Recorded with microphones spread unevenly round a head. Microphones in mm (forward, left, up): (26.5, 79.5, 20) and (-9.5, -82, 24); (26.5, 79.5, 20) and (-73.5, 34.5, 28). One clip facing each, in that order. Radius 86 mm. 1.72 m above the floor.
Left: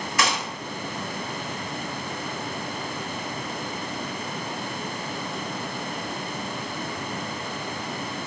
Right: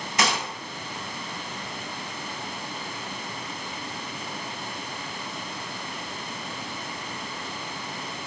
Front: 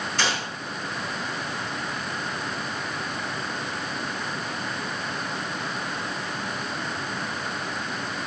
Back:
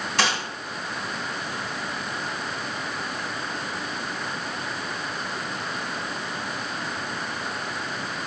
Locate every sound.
0.2 s a gunshot: 165° right, 2.0 m